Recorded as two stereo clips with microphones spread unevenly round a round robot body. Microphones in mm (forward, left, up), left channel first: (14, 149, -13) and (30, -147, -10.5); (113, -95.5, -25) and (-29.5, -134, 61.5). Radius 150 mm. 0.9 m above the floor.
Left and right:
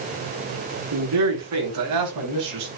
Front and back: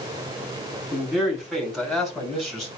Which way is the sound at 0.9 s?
75° right.